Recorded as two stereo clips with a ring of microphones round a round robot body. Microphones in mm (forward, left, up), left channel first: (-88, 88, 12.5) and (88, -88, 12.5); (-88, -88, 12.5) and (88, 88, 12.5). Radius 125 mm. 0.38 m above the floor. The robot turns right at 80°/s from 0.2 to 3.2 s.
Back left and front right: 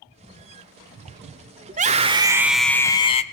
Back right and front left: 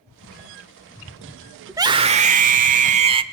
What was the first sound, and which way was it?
A scream, 25° right.